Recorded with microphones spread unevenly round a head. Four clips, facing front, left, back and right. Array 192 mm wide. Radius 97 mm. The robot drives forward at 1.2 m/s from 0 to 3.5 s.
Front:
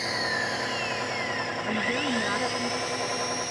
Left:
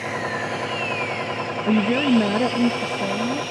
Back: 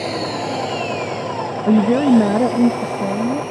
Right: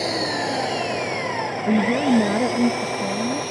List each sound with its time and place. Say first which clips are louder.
0.0 s an engine running: right 3 dB, back 8 dB; 135° right; by 3.5 s 150° right
1.7 s a woman speaking: even, back 17 dB; 175° left; by 3.4 s straight behind